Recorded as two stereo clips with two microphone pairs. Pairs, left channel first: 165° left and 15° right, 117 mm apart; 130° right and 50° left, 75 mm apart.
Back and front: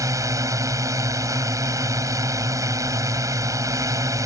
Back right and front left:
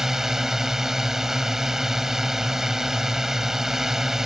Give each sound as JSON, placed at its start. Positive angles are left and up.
{"t": 0.0, "sound": "a drone", "azimuth_deg": -25}